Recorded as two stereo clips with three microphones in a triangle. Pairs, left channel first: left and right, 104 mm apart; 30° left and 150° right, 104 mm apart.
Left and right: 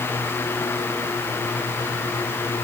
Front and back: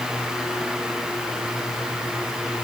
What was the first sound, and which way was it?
Only background noise.